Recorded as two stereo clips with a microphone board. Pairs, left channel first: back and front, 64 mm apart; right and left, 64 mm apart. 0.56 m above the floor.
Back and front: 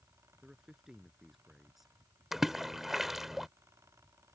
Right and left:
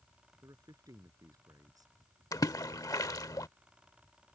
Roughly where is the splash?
Right.